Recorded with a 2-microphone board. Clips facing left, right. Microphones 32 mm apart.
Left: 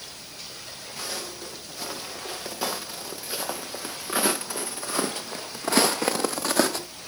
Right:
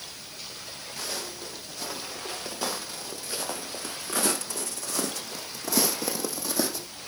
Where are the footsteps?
5° left (ahead or behind), 3 m; by 6.9 s 70° left (ahead or behind), 0.8 m.